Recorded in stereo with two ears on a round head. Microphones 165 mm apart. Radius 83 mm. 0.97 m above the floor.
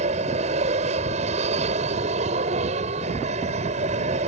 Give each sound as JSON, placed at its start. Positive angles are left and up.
{"t": 0.0, "sound": "an aircraft", "side_deg": -35}